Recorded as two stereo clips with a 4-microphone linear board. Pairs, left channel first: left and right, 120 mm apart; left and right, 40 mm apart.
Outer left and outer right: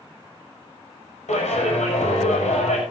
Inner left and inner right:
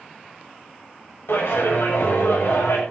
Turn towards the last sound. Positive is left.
turn(degrees=80)